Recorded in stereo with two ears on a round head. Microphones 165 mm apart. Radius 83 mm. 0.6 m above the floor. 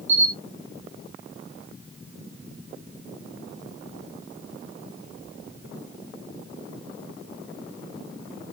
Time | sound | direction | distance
0.1 | a camera shutter | 35° right (ahead or behind) | 6 m